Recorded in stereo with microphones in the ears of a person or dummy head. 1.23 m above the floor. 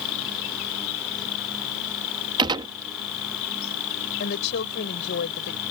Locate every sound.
0.0 s an insect: 75° left (ahead or behind)
2.4 s a gunshot: 20° right (ahead or behind)
4.2 s a woman speaking: 60° left (ahead or behind)